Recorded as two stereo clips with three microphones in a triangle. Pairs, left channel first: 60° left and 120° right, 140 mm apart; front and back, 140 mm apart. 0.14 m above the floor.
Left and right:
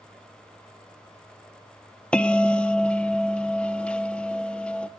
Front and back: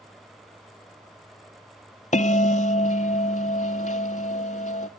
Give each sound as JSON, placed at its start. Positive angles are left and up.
{"t": 2.1, "sound": "a bell", "azimuth_deg": -25, "distance_m": 0.6}